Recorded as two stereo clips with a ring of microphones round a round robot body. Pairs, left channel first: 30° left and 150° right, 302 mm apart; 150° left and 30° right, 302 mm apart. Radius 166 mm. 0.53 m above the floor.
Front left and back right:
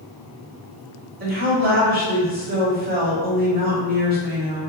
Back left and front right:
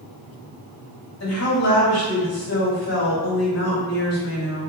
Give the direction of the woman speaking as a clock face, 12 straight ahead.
7 o'clock.